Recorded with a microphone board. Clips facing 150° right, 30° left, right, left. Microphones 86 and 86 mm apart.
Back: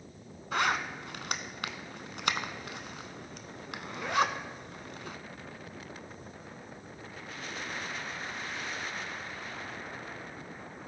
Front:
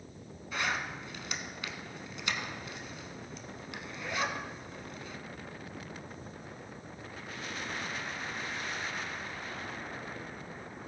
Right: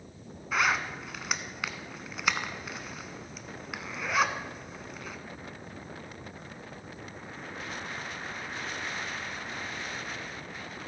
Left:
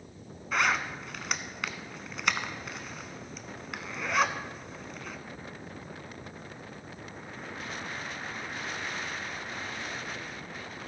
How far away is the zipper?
About 0.6 m.